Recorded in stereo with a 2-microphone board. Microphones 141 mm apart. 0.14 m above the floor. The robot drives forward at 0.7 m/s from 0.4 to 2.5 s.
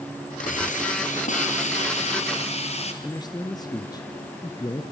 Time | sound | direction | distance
0.4 | a hiss | 60° left (ahead or behind) | 3 m
3.0 | a man speaking | 25° left (ahead or behind) | 1.6 m